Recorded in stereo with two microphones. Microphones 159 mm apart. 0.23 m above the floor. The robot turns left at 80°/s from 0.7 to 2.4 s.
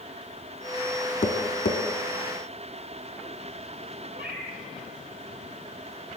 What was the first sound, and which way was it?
Tapping, 40° left (ahead or behind).